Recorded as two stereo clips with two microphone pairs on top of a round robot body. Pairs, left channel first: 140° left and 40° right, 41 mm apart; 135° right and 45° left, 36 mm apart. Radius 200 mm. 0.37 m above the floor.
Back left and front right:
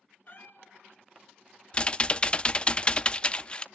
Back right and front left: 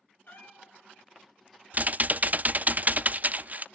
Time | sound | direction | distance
0.3 | a cat meowing | 170° right | 2.5 m
1.7 | typing on a keyboard | 80° left | 0.5 m